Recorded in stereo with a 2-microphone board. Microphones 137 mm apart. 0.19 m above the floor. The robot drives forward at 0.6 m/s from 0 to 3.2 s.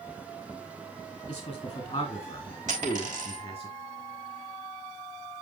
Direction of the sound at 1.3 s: 35° left (ahead or behind).